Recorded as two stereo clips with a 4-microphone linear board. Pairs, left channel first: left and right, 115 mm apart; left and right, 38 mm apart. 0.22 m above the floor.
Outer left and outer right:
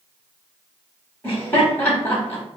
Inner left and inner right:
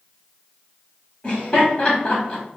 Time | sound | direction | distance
1.2 | laughter | 20° left (ahead or behind) | 1.2 m